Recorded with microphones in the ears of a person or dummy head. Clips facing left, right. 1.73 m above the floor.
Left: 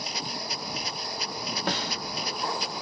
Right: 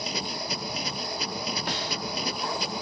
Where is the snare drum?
45° left (ahead or behind).